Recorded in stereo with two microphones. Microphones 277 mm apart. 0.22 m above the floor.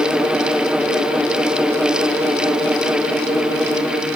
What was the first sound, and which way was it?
Only background noise.